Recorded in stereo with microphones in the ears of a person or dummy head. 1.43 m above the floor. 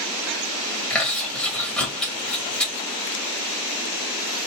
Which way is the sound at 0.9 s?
5° left (ahead or behind).